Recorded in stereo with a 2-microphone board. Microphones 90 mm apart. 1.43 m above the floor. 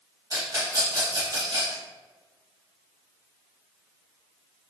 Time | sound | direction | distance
0.3 | a rattle | 45° right (ahead or behind) | 1.2 m